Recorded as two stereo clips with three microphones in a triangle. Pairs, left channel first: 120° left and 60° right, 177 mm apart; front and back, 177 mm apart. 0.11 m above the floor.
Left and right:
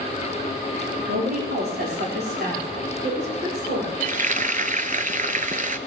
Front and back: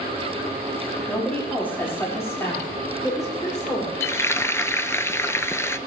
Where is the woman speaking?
85° right, 5.5 m; by 3.9 s 65° right, 8 m.